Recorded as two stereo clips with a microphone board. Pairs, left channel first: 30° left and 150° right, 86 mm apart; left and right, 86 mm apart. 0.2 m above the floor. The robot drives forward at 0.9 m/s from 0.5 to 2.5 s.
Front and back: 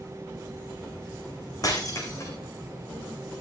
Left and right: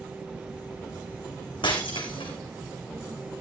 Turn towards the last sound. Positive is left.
turn(degrees=85)